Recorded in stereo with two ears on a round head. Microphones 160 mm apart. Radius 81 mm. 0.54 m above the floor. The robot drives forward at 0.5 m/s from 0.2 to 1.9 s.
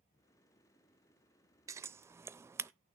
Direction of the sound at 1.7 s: 20° right (ahead or behind).